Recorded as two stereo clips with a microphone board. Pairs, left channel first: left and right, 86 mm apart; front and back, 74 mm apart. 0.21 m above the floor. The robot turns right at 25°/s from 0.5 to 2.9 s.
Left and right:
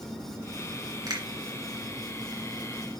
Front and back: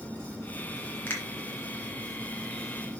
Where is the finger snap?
55° right, 2.5 m.